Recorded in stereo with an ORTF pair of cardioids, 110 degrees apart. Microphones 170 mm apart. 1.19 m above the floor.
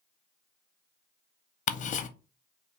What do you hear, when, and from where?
1.7 s ticking: 45° left, 0.6 m